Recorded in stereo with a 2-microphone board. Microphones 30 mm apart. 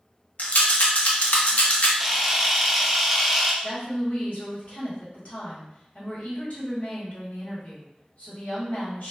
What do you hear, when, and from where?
0.4 s a rattle: 65° left (ahead or behind), 0.6 m
2.0 s a camera shutter: centre (ahead or behind), 0.6 m
3.6 s a woman speaking: 65° left (ahead or behind), 1.3 m